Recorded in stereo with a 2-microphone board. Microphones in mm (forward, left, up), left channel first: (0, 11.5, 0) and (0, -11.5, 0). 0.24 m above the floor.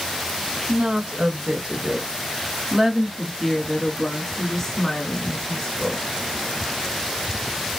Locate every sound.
0.7 s a woman speaking: 55° right (ahead or behind), 1.8 m; by 6.0 s 30° left (ahead or behind), 2 m